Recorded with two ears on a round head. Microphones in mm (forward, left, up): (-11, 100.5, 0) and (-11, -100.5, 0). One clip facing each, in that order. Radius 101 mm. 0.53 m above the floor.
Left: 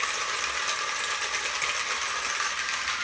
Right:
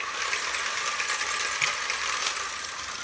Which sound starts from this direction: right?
A finger snap, at 1.6 s.